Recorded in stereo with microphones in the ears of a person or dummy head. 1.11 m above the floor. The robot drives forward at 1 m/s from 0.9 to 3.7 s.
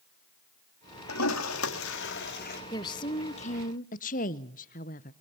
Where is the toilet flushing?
85° left, 1.7 m; by 2.6 s 50° left (ahead or behind), 2 m.